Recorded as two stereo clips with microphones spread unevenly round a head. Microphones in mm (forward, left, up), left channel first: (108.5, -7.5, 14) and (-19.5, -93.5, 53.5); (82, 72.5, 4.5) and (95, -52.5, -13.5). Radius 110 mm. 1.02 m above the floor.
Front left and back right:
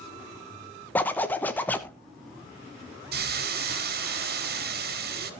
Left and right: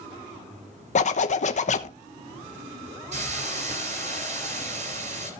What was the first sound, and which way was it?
A zipper, 95° left.